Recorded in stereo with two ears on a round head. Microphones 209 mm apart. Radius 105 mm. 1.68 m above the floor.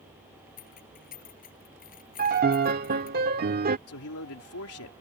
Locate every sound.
0.6 s keys jangling: 40° left (ahead or behind)
2.2 s a piano: 40° right (ahead or behind)
3.9 s a man speaking: 70° left (ahead or behind)